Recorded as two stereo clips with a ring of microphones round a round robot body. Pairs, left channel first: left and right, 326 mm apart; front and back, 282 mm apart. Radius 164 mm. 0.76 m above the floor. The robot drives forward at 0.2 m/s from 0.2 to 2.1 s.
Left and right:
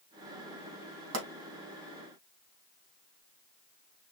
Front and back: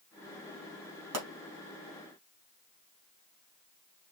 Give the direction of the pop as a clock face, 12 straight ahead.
5 o'clock.